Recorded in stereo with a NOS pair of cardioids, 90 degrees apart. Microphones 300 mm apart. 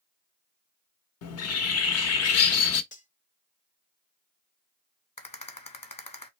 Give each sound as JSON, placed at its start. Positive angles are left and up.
{"t": 1.2, "sound": "a bird", "azimuth_deg": 55, "distance_m": 0.8}
{"t": 2.9, "sound": "cutlery clinking", "azimuth_deg": 25, "distance_m": 0.8}
{"t": 5.2, "sound": "a rattle", "azimuth_deg": 20, "distance_m": 1.0}